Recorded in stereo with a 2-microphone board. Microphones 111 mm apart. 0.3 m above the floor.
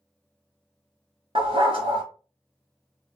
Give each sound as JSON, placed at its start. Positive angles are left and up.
{"t": 1.4, "sound": "a dog barking", "side_deg": -55, "distance_m": 1.2}